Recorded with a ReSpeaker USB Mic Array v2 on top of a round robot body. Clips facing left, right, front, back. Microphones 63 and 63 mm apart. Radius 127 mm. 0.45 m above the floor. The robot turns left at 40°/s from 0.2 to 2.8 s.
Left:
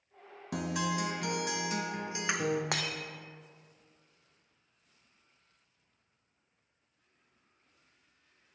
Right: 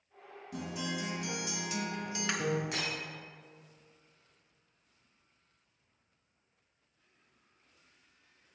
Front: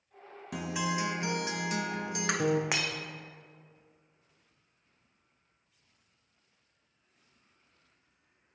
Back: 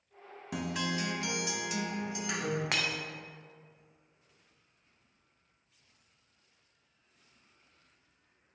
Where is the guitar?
90° left, 0.5 m; by 2.6 s 5° left, 0.5 m.